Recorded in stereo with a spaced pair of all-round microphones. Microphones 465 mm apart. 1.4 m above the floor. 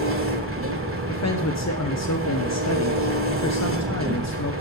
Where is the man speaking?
35° left (ahead or behind), 0.9 m.